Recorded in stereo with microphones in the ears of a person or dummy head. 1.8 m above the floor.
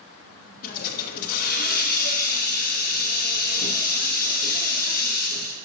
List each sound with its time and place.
0.6 s a hiss: 45° left (ahead or behind), 0.9 m